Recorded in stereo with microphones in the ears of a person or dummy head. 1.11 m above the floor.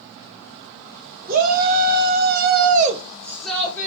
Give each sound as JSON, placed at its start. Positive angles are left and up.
{"t": 1.3, "sound": "a shout", "side_deg": -50, "distance_m": 1.3}